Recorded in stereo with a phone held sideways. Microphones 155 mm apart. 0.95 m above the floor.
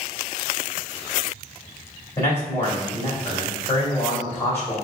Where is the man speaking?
15° left (ahead or behind), 2.0 m.